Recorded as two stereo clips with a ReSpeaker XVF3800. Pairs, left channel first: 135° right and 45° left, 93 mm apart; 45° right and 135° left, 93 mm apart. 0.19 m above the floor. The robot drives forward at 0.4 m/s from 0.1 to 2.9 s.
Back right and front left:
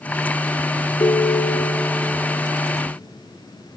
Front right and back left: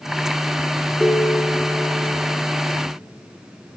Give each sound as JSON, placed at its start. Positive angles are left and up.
{"t": 1.0, "sound": "a ringtone", "azimuth_deg": -125, "distance_m": 0.8}